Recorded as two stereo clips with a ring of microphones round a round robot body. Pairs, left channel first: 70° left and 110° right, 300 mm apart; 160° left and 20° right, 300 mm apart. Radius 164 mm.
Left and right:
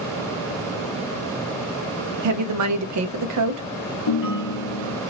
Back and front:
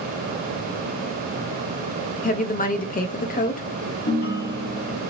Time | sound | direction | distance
2.2 | a woman speaking | 140° right | 0.7 m
4.1 | a ringtone | 95° left | 1.0 m